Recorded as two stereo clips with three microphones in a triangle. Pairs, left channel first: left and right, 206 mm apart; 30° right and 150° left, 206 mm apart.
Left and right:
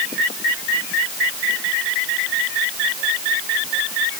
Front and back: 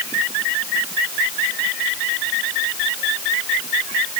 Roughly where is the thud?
No thud in this recording.